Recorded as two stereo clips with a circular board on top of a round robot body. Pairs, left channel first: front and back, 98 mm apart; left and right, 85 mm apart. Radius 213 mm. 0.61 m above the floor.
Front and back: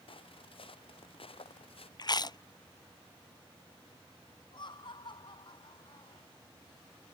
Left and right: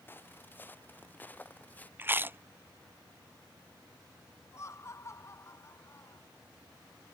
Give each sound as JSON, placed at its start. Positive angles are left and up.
{"t": 0.1, "sound": "footsteps", "azimuth_deg": 25}
{"t": 2.0, "sound": "chewing", "azimuth_deg": -30}
{"t": 4.5, "sound": "laughter", "azimuth_deg": 35}